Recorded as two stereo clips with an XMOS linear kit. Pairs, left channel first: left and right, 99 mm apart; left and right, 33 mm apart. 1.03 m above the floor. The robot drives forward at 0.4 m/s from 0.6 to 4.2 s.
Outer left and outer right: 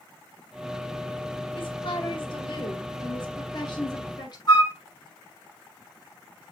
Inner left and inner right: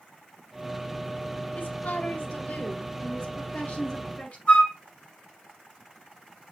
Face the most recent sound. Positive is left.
turn(degrees=50)  # may be behind; listen again after turning